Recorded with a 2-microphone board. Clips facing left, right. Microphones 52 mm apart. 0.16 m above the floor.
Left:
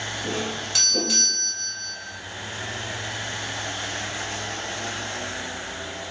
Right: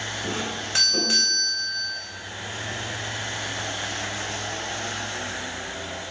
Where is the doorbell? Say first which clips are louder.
Left 2 dB; 25° right (ahead or behind), 1.7 m.